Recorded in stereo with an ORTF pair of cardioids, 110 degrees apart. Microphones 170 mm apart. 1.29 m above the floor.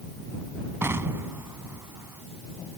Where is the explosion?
15° right.